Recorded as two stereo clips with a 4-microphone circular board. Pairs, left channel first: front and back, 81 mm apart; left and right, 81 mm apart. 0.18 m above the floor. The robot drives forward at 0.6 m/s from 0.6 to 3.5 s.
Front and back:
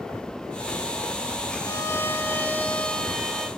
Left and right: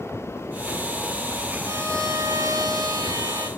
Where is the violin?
45° right, 1.6 m; by 3.5 s 95° right, 1.2 m.